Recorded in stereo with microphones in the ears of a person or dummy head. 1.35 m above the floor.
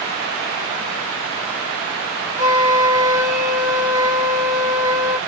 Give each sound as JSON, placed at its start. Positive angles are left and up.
{"t": 2.4, "sound": "a flute", "side_deg": -45, "distance_m": 1.9}